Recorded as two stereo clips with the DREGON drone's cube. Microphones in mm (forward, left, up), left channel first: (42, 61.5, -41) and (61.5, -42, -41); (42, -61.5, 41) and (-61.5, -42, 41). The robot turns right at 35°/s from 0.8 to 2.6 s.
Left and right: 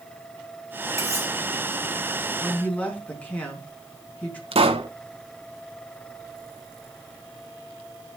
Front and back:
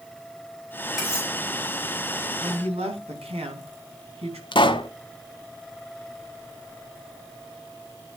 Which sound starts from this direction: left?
Cutlery clinking, at 1.0 s.